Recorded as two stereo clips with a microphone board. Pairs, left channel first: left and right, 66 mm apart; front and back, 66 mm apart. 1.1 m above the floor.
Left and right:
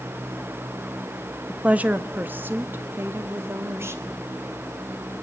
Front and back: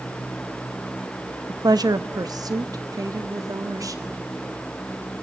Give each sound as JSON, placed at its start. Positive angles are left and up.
{"t": 1.5, "sound": "a woman speaking", "azimuth_deg": -165, "distance_m": 1.1}